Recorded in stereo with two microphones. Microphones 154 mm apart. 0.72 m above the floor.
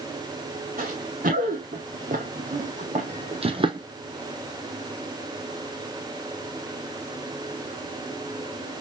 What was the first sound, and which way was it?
Running footsteps, 70° right (ahead or behind).